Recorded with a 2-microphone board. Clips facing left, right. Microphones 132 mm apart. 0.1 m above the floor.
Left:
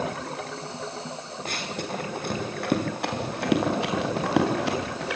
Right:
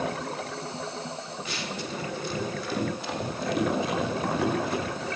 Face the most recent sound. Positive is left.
turn(degrees=80)